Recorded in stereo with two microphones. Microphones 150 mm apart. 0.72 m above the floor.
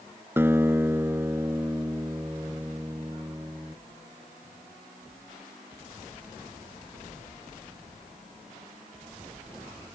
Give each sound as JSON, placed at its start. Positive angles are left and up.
{"t": 0.4, "sound": "a guitar", "side_deg": -15}